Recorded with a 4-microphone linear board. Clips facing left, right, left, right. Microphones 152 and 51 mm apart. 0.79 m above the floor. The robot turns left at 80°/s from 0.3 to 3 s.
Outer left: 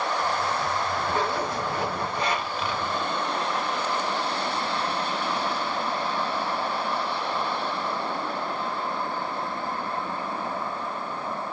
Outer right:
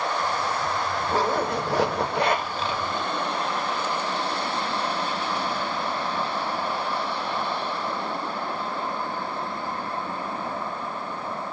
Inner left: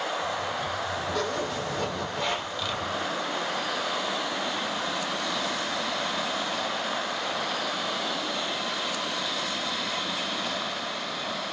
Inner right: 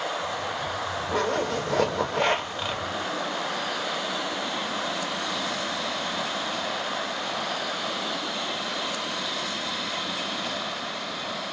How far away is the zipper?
About 0.6 m.